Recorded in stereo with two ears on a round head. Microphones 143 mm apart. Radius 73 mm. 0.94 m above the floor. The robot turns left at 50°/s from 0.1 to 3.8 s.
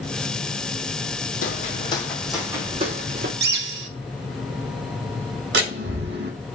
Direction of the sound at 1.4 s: 55° left (ahead or behind).